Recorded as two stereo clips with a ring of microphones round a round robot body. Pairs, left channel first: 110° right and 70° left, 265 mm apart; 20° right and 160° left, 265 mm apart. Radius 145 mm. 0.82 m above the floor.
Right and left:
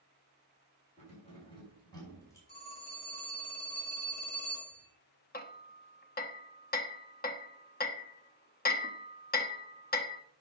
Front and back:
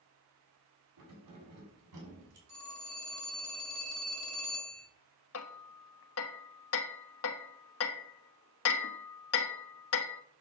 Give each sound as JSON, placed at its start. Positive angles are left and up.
{"t": 1.0, "sound": "keys jangling", "azimuth_deg": 180, "distance_m": 5.5}
{"t": 2.5, "sound": "a phone ringing", "azimuth_deg": -170, "distance_m": 8.0}
{"t": 5.3, "sound": "hammering", "azimuth_deg": -55, "distance_m": 1.2}